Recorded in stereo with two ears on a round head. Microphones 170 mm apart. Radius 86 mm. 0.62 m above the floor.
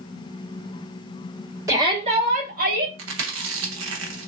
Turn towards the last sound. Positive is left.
turn(degrees=-75)  # may be behind; listen again after turning